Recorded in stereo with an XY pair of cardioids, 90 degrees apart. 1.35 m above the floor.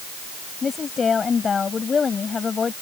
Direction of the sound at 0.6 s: 45° left.